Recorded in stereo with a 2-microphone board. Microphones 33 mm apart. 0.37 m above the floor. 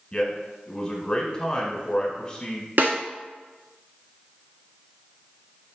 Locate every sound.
0.1 s a man speaking: 15° left (ahead or behind), 1.0 m
2.8 s a snare drum: 65° right (ahead or behind), 0.7 m